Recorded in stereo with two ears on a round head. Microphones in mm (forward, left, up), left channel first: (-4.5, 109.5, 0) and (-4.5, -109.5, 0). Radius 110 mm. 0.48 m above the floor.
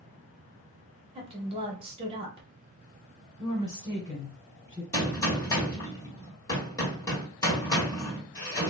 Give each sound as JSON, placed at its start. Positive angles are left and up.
{"t": 1.1, "sound": "a woman speaking", "side_deg": -20, "distance_m": 0.7}
{"t": 3.4, "sound": "a woman speaking", "side_deg": 20, "distance_m": 1.2}
{"t": 4.9, "sound": "a gunshot", "side_deg": 15, "distance_m": 1.2}